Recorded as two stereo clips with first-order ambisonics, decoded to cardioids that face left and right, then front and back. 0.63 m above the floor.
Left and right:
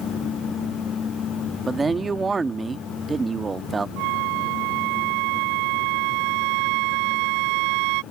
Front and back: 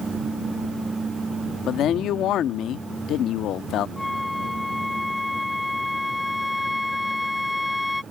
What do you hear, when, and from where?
1.7 s a man speaking: 20° right
4.0 s a flute: 85° right